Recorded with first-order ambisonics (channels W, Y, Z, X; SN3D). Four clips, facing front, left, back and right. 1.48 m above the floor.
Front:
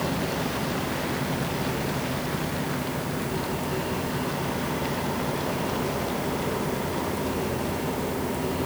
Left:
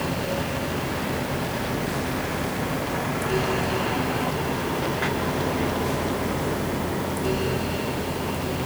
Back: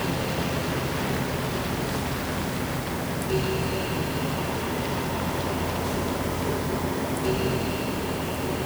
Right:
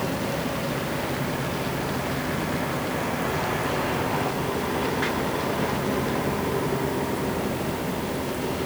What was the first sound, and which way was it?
Only background noise.